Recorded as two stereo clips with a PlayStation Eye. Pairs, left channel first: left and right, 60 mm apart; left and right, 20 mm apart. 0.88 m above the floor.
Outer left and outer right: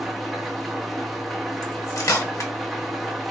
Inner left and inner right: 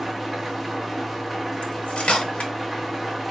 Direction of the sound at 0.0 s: Centre (ahead or behind).